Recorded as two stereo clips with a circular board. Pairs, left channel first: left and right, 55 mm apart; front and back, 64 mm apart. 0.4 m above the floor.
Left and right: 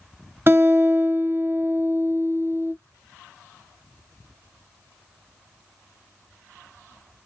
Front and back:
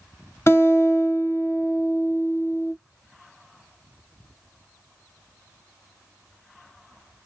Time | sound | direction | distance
0.5 | a guitar | 45° right | 0.7 m